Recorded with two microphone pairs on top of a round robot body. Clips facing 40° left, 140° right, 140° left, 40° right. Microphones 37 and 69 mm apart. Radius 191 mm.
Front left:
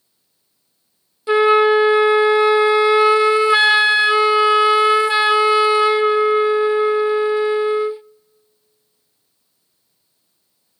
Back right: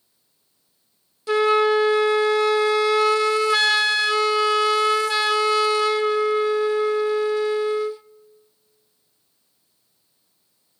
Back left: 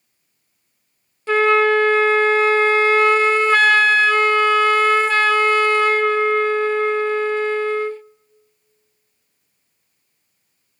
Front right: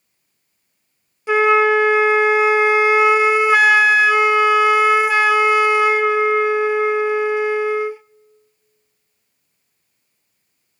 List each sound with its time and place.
1.3 s a flute: 30° left, 0.6 m